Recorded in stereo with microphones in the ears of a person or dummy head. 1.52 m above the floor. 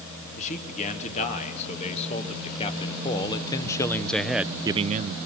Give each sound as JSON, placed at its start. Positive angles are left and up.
{"t": 0.4, "sound": "a man speaking", "side_deg": 40, "distance_m": 3.0}